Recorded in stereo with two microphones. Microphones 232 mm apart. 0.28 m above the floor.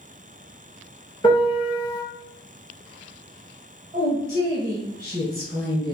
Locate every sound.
1.2 s a piano: 20° left (ahead or behind), 1.2 m
3.9 s a woman speaking: 40° right (ahead or behind), 1.8 m